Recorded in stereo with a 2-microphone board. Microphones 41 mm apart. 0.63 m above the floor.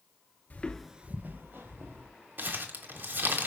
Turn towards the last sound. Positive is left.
turn(degrees=-50)  # may be behind; listen again after turning